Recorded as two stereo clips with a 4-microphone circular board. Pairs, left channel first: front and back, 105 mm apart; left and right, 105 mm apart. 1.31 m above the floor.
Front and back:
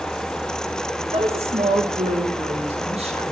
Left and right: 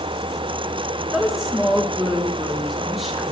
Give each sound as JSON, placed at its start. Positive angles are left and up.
{"t": 1.1, "sound": "a woman speaking", "azimuth_deg": 180, "distance_m": 1.7}